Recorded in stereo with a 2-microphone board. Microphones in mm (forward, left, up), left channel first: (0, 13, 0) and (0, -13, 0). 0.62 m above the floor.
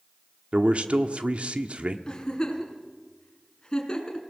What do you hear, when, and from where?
0.5 s a man speaking: 50° right (ahead or behind), 1.2 m
2.1 s a giggle: 30° left (ahead or behind), 3.5 m